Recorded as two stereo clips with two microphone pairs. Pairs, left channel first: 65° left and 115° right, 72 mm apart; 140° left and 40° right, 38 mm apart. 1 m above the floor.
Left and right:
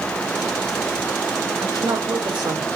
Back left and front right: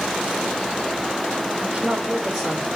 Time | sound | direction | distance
1.6 | a woman speaking | 110° right | 4 m